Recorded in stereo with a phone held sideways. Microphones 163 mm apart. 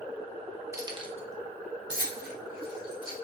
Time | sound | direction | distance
0.7 | keys jangling | 20° right (ahead or behind) | 0.6 m